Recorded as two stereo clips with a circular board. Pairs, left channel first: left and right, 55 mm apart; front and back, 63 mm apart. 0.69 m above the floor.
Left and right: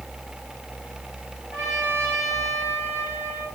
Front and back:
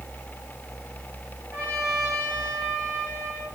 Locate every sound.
1.5 s a trumpet: 130° right, 7 m